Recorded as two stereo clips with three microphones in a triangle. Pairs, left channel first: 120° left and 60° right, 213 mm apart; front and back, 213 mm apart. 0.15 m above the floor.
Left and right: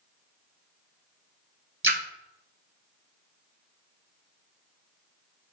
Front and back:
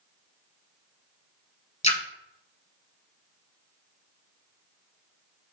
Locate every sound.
1.8 s a splash: 55° right, 0.8 m